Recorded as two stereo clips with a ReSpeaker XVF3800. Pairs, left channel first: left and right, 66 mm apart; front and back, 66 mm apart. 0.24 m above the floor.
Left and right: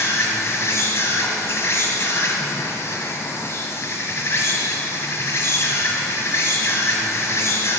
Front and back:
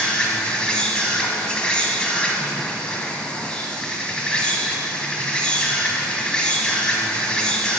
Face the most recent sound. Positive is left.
turn(degrees=70)